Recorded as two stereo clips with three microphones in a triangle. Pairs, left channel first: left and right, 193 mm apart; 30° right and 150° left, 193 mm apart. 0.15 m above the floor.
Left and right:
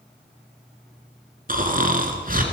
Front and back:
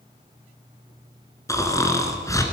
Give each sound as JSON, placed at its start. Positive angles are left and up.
{"t": 1.5, "sound": "snoring", "azimuth_deg": -100, "distance_m": 1.5}